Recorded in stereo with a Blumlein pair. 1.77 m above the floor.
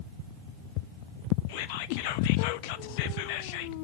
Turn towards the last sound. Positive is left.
turn(degrees=45)